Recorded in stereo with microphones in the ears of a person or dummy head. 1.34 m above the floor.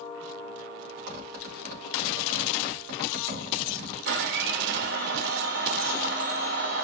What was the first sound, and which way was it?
A zipper, 70° right (ahead or behind).